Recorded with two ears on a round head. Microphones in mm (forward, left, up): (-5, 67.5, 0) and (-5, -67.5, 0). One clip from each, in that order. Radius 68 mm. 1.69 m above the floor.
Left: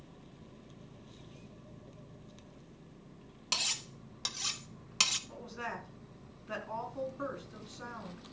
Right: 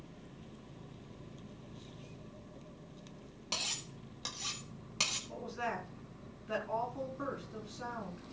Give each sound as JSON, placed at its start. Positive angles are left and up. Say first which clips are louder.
{"t": 3.5, "sound": "cutlery clinking", "louder": "left 4 dB", "side_deg": 45, "distance_m": 1.3}
{"t": 5.3, "sound": "a woman speaking", "louder": "right 2 dB", "side_deg": 15, "distance_m": 4.5}